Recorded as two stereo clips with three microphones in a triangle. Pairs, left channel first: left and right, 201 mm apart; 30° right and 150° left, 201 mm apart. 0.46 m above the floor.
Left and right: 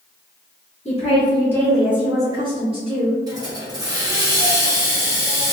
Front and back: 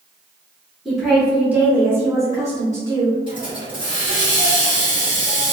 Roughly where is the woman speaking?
Ahead left.